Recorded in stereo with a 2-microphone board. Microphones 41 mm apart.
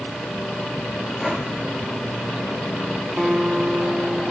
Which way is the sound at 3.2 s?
20° right (ahead or behind).